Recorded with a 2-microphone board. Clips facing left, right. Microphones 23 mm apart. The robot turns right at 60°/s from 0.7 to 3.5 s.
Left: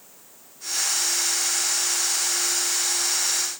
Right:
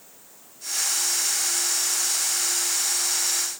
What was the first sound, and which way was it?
Only background noise.